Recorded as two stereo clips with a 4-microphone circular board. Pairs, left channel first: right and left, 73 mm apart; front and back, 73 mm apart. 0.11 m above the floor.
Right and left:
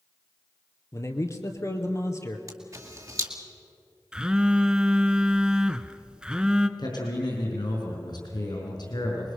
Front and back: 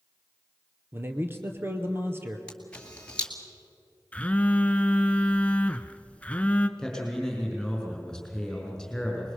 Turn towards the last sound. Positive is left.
turn(degrees=-85)